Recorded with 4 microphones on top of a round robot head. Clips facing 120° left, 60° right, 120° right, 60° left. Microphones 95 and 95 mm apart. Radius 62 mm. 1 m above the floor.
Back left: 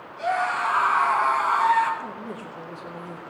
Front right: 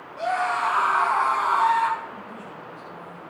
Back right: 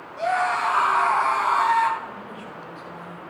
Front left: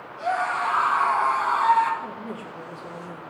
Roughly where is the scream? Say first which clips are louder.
Even, back right 2 dB; right.